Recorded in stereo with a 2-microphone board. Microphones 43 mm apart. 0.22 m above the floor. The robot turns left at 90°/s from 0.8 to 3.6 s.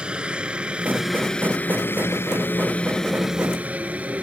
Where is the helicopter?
25° right (ahead or behind); by 4.2 s 35° right (ahead or behind).